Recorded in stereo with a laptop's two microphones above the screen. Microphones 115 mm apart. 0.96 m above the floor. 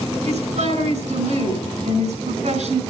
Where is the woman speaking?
70° right (ahead or behind), 6 m.